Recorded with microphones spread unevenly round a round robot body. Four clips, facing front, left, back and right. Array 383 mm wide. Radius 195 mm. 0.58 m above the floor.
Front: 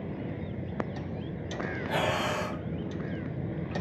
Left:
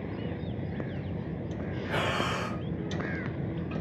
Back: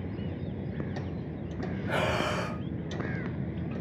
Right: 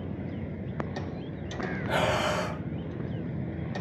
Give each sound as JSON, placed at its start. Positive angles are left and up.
{"t": 1.9, "sound": "breathing", "azimuth_deg": -95, "distance_m": 0.6}